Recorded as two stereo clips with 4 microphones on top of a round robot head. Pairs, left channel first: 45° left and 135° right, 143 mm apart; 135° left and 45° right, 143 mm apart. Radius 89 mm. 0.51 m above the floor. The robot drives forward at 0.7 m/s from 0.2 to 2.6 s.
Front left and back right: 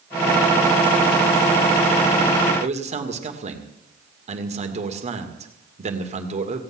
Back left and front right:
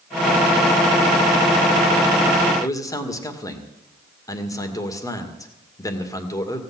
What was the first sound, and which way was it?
A man speaking, 160° right.